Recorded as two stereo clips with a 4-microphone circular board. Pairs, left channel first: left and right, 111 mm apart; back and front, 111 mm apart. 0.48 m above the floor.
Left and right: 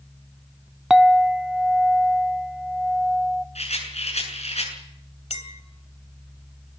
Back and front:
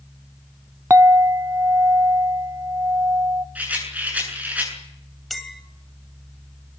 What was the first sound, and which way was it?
A clink, 10° right.